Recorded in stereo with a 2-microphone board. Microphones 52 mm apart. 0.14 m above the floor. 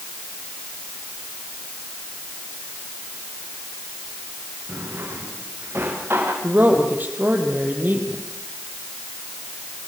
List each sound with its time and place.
4.7 s a drawer: 50° right (ahead or behind), 7.5 m
6.4 s a woman speaking: 35° right (ahead or behind), 5.5 m